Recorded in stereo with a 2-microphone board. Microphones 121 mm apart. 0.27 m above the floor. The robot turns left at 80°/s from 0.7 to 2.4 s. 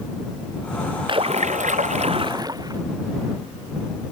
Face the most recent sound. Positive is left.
turn(degrees=-145)